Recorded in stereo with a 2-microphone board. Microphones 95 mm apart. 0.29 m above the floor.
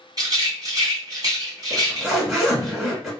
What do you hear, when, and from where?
0.2 s a rattle: 35° right (ahead or behind), 1.9 m
1.7 s a zipper: 5° right (ahead or behind), 1.9 m